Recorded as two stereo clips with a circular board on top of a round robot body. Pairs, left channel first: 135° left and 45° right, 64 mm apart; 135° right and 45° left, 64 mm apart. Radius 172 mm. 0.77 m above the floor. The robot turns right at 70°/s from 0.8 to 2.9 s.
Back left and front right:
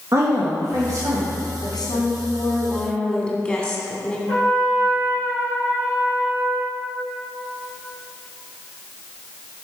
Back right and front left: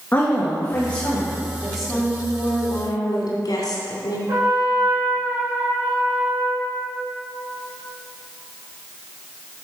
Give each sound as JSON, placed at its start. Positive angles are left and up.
{"t": 0.1, "sound": "a woman speaking", "azimuth_deg": -75, "distance_m": 1.8}
{"t": 1.6, "sound": "a woman speaking", "azimuth_deg": 115, "distance_m": 2.5}
{"t": 4.3, "sound": "a trumpet", "azimuth_deg": 70, "distance_m": 3.0}